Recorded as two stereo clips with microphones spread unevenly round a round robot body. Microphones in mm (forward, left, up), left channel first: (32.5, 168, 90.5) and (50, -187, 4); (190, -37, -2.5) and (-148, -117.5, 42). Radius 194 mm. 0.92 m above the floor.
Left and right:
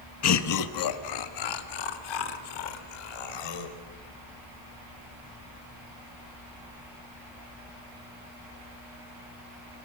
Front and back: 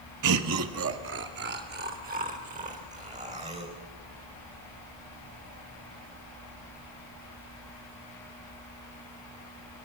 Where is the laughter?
150° left, 1.2 m; by 3.8 s 120° left, 4.5 m.